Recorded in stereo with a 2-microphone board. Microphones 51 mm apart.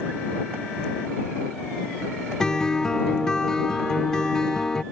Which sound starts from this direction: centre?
A guitar, at 2.4 s.